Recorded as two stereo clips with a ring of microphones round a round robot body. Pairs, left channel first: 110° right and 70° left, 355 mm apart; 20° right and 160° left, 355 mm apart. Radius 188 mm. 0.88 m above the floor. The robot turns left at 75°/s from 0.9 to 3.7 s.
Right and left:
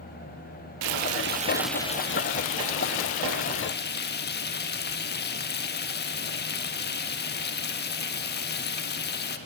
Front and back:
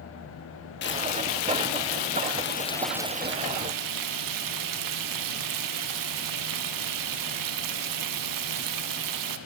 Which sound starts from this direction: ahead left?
Frying, at 0.8 s.